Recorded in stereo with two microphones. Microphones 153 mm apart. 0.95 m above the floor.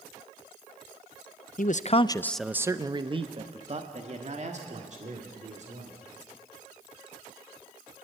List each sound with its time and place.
1.6 s a man speaking: 60° left (ahead or behind), 0.6 m; by 6.0 s 50° right (ahead or behind), 3 m